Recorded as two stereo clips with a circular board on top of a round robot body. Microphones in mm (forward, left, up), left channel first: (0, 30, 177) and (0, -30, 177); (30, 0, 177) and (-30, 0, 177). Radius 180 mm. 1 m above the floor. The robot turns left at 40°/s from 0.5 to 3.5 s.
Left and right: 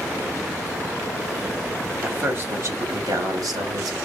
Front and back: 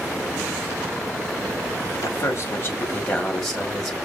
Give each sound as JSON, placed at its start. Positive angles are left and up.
{"t": 2.0, "sound": "a man speaking", "azimuth_deg": -30, "distance_m": 2.5}